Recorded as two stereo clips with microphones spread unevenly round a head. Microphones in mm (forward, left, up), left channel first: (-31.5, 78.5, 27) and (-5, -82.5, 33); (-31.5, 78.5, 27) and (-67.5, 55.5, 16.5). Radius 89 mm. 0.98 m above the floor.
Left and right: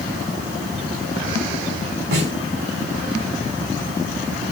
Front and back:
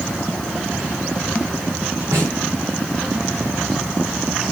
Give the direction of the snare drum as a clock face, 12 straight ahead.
3 o'clock.